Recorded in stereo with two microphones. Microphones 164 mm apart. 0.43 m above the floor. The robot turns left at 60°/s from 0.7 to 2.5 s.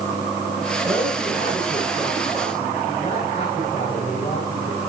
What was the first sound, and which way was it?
A man speaking, 140° right.